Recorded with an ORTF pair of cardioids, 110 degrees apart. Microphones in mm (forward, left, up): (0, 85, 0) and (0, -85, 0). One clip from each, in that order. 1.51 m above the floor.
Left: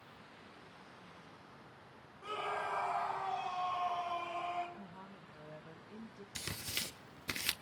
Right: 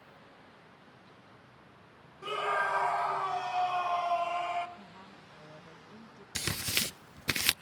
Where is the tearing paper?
40° right, 0.5 m.